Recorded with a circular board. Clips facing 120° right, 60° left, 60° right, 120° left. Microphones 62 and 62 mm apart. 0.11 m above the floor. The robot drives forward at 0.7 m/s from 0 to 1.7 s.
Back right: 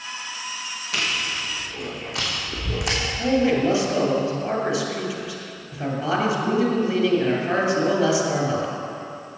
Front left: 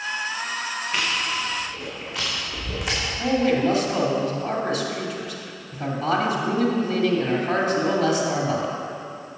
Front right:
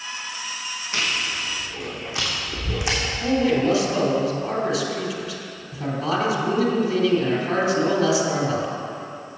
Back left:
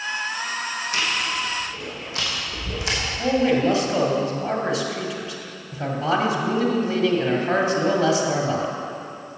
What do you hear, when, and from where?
0.9 s chewing: 125° right, 2.5 m; by 3.0 s 130° right, 3 m
3.2 s a man speaking: 165° left, 2 m